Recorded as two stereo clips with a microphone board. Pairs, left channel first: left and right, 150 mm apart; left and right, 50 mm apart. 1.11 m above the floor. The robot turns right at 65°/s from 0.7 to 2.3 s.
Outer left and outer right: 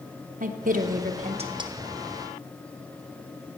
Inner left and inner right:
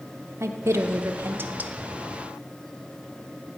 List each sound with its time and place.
0.4 s a woman speaking: 95° right, 0.7 m; by 1.7 s 30° right, 0.7 m